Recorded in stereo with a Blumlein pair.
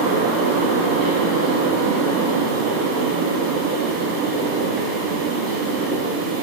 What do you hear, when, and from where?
0.0 s a fan: 45° right, 2.0 m